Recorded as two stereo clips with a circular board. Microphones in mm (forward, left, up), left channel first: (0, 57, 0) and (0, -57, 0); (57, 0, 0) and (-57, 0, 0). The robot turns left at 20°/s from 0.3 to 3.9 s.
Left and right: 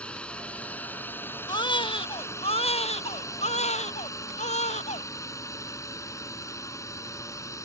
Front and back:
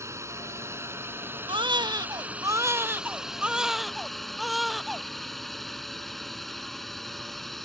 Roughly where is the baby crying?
Behind left.